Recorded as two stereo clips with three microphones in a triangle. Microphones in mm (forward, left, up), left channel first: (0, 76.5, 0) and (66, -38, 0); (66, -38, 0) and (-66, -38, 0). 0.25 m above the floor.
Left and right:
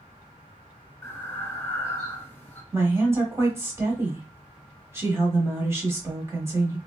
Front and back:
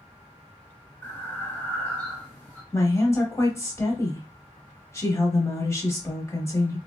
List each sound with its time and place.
1.0 s breathing: 60° left, 1.1 m
2.7 s a woman speaking: 25° right, 1.0 m